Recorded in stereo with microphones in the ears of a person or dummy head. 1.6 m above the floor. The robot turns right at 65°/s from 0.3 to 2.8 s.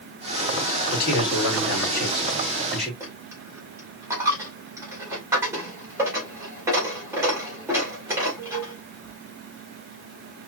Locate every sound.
0.9 s a man speaking: 50° left, 3.5 m; by 2.9 s 170° left, 3.5 m
3.0 s a dropped coin: 10° right (ahead or behind), 2.5 m